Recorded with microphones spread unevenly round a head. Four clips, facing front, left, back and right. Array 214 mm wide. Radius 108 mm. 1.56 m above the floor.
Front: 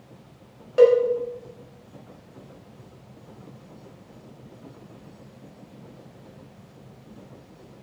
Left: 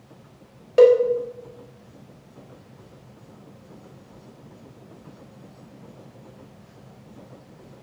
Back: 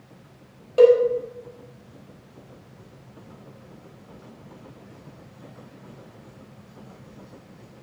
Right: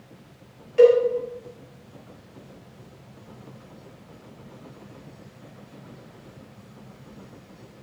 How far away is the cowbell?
About 1.8 m.